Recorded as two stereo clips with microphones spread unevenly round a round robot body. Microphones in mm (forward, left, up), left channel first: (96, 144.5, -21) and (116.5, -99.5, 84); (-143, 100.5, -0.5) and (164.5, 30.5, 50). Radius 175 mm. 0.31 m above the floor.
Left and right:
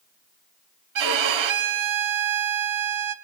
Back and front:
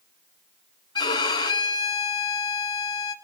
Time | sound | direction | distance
0.9 | a violin | 115° right | 0.7 m